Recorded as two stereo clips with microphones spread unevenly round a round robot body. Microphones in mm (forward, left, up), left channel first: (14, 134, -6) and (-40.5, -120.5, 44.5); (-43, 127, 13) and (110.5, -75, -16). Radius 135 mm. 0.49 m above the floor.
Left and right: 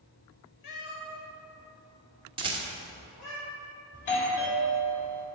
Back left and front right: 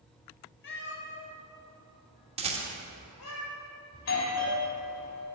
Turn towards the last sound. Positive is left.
turn(degrees=110)